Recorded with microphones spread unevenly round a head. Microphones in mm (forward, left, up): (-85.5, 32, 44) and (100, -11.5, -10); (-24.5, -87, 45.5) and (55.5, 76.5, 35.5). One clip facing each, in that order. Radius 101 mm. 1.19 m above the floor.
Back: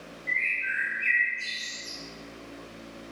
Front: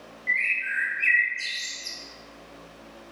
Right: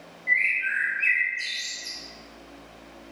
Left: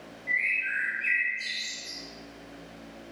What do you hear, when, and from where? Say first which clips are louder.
0.3 s a bird: front 1 dB, right 4 dB; 55° right, 1.1 m